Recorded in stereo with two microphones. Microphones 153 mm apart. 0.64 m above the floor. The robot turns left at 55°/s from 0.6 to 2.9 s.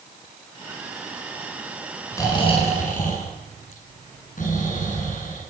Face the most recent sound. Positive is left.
turn(degrees=120)